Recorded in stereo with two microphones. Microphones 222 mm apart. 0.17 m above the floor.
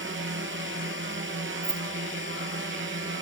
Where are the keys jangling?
60° right (ahead or behind).